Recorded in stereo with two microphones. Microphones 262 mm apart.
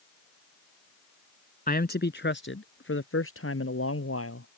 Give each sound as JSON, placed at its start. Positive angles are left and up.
{"t": 1.7, "sound": "a man speaking", "side_deg": 35}